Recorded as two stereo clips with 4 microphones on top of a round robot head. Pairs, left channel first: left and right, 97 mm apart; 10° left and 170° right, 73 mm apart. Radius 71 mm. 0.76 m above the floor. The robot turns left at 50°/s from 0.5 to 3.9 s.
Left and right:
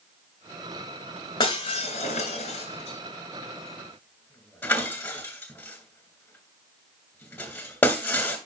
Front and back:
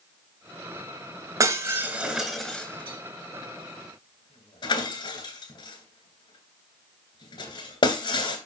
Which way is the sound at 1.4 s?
140° left.